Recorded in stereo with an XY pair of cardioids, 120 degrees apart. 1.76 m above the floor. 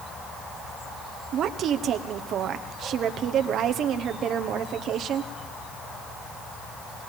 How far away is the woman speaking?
About 1.2 m.